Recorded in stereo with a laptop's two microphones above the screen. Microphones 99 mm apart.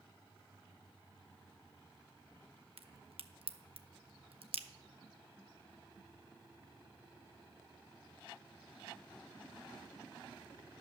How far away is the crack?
About 0.8 m.